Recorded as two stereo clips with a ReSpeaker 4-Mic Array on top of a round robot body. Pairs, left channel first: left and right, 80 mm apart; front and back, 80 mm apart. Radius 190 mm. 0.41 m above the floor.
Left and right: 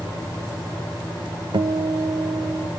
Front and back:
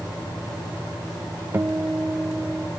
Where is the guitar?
115° right, 0.7 m.